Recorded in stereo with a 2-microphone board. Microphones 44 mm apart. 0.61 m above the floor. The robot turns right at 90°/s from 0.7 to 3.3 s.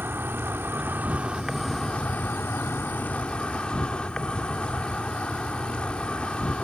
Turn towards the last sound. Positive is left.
turn(degrees=150)